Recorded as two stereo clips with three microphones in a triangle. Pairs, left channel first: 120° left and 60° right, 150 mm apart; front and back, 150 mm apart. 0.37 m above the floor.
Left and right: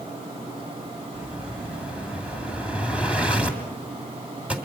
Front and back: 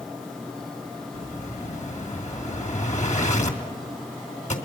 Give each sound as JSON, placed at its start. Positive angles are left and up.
{"t": 1.1, "sound": "an explosion", "azimuth_deg": 20, "distance_m": 2.5}